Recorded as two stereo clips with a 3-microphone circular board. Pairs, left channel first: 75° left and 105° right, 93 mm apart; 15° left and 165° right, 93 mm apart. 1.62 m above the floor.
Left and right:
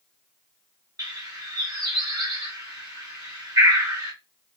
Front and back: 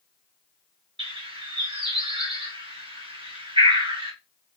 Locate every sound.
1.0 s a bird: 150° right, 1.1 m